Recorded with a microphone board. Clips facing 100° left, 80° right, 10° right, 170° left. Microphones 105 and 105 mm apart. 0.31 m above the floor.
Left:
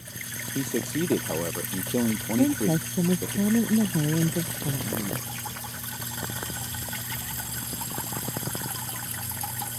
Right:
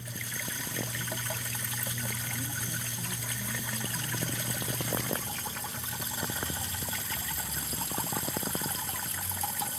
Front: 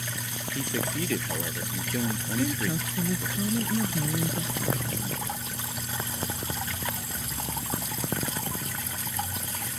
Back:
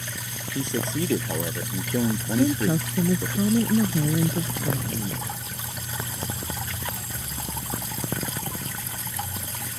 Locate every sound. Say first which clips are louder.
0.6 s a man speaking: left 14 dB, back 4 dB; 100° left; by 3.4 s 120° left
2.4 s a woman speaking: left 17 dB, back 7 dB; 115° left